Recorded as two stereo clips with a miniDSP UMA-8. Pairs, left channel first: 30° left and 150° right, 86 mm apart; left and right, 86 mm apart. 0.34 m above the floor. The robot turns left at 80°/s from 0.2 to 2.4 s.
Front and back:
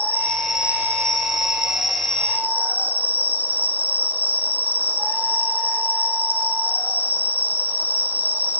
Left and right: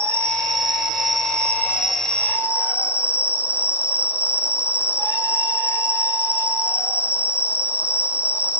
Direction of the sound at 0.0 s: 40° right.